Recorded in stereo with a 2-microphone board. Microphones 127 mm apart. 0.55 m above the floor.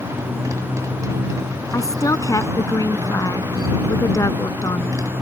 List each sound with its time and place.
0.0 s a motorcycle: 25° right (ahead or behind)
1.7 s a woman speaking: 25° left (ahead or behind)